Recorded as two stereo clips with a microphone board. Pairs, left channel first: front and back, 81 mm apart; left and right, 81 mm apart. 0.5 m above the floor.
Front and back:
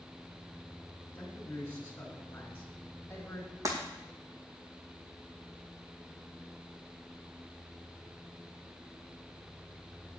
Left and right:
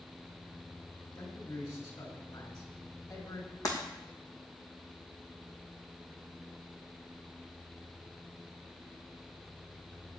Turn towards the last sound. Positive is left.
turn(degrees=135)